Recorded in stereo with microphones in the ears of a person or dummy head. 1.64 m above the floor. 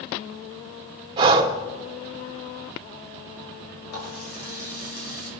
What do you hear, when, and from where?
1.2 s breathing: 20° right (ahead or behind), 1.1 m
3.9 s a running tap: 50° left (ahead or behind), 5 m